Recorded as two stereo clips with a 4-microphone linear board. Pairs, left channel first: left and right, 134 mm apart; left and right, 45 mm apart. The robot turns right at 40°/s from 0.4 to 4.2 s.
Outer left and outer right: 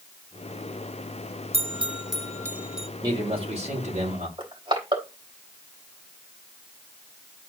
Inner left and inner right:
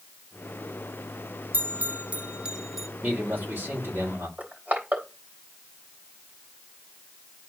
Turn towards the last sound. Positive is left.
turn(degrees=-45)  # may be behind; listen again after turning